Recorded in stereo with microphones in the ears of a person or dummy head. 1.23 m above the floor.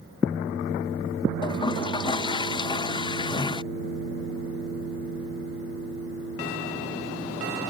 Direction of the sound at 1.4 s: 25° left (ahead or behind).